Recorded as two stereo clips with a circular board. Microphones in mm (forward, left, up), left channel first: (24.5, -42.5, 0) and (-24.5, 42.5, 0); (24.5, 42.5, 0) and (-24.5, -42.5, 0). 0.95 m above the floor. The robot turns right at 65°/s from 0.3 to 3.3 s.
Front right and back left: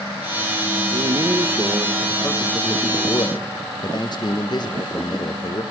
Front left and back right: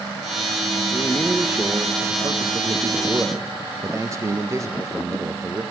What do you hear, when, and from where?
0.9 s a man speaking: 130° left, 0.7 m; by 5.6 s 75° right, 0.7 m